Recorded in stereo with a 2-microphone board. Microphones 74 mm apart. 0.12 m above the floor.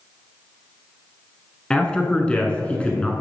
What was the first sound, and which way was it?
A man speaking, 15° left (ahead or behind).